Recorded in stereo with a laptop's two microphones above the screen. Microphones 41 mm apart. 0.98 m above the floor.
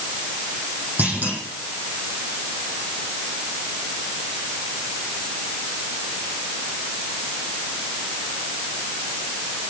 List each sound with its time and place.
1.0 s a clunk: 45° right (ahead or behind), 9.5 m